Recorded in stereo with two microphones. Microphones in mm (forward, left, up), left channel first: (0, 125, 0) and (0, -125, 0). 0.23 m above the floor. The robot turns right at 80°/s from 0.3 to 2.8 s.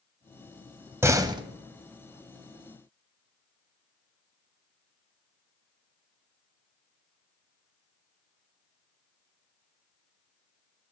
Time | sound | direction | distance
1.0 | a door slam | 10° right (ahead or behind) | 0.8 m